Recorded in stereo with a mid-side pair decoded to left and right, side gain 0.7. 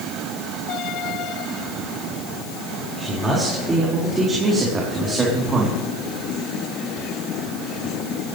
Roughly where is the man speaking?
Ahead.